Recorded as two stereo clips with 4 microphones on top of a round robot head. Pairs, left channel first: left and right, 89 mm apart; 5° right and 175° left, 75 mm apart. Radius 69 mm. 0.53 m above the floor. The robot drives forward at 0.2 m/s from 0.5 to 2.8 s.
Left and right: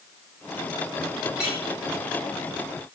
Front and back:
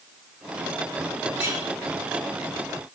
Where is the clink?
170° right, 5 m.